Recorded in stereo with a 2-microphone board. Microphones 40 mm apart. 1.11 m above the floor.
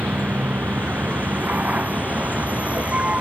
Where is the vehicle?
55° right (ahead or behind); by 3.2 s 35° right (ahead or behind).